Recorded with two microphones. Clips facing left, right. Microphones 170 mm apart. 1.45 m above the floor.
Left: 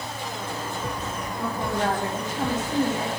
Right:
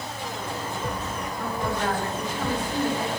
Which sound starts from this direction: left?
A woman speaking, at 1.4 s.